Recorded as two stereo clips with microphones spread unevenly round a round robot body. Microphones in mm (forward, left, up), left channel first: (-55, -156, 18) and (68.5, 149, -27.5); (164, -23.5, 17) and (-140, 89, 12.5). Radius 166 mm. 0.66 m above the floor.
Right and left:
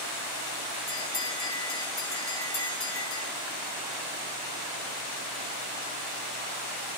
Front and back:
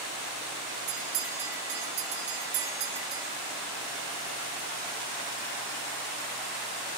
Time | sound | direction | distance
0.9 | a bell | 170° right | 5 m